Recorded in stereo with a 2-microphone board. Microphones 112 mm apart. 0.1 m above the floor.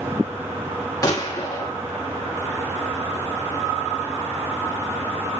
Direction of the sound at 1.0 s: 30° left (ahead or behind).